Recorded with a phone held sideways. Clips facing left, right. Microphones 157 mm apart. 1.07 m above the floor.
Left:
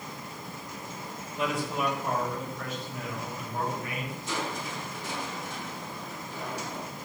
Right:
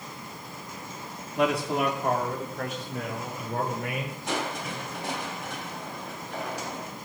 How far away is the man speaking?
About 2.0 m.